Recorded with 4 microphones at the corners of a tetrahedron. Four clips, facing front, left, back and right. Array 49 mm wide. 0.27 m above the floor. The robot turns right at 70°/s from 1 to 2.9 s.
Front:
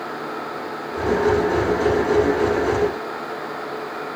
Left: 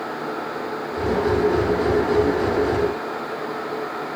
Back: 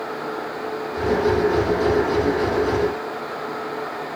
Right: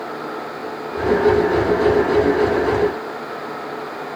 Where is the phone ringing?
No phone ringing in this recording.